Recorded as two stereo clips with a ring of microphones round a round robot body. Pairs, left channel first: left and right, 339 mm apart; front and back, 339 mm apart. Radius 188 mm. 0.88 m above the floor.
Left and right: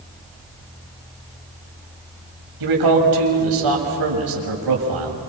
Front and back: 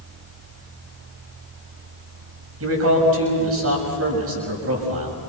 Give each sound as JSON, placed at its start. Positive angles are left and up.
{"t": 2.6, "sound": "a man speaking", "azimuth_deg": -125, "distance_m": 6.5}